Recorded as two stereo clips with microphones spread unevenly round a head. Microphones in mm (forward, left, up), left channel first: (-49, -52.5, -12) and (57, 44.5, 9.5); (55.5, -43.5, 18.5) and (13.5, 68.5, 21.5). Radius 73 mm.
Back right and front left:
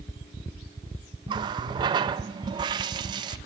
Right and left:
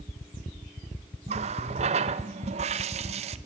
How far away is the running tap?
About 0.6 m.